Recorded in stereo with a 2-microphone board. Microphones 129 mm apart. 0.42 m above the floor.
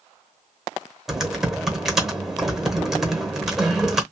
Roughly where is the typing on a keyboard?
Centre.